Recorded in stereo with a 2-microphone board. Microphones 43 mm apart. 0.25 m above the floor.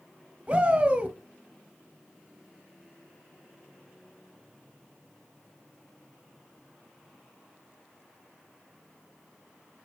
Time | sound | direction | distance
0.5 | a shout | 30° right (ahead or behind) | 1.3 m